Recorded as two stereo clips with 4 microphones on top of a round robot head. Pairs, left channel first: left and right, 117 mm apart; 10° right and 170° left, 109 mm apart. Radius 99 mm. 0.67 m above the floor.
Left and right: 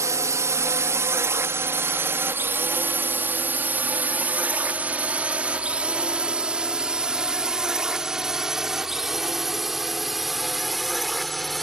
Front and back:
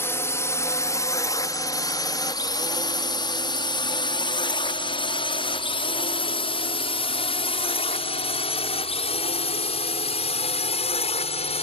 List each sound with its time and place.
0.0 s a drone: 55° right; by 11.6 s straight ahead